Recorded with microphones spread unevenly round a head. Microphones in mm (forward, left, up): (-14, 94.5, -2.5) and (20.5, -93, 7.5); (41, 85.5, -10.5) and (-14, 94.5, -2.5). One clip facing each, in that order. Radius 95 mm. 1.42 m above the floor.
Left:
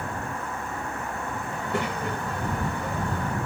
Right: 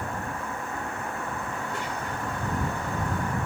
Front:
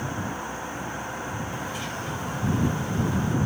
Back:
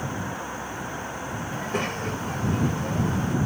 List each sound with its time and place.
1.5 s a child speaking: 135° left